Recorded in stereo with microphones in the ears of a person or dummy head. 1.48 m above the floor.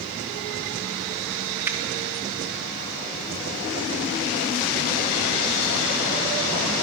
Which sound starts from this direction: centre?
A finger snap, at 1.6 s.